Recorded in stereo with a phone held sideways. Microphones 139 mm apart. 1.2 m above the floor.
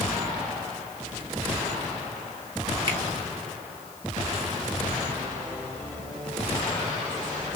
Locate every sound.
2.9 s a finger snap: 35° right (ahead or behind), 2 m